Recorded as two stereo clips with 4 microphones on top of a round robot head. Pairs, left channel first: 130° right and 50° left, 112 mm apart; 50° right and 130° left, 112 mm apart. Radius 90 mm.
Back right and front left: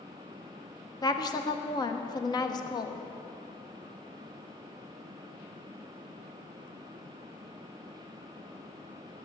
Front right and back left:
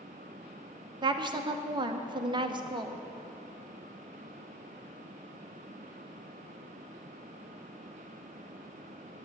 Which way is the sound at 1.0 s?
Straight behind.